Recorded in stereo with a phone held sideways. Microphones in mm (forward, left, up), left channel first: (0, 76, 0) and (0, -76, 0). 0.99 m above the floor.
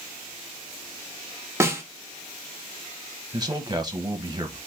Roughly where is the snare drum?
Centre.